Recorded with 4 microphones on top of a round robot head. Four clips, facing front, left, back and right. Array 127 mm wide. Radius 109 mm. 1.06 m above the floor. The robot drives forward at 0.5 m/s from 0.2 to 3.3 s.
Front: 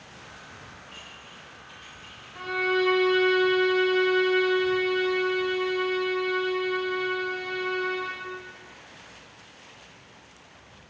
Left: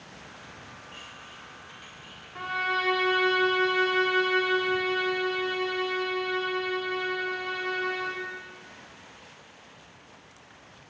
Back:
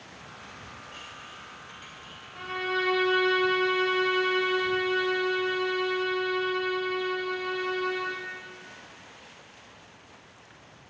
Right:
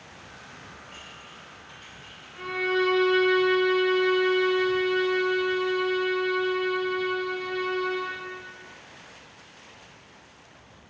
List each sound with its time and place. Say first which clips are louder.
0.9 s dishes clattering: even, back 2 dB; 115° right, 1.1 m; by 2.2 s 140° right, 1.6 m
2.4 s a violin: right 4 dB, front 5 dB; 75° left, 1.9 m; by 8.3 s 90° left, 1.8 m